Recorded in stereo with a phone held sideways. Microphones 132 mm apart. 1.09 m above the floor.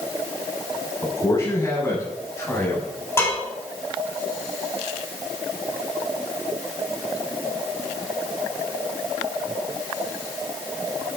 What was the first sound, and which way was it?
A man speaking, 25° left (ahead or behind).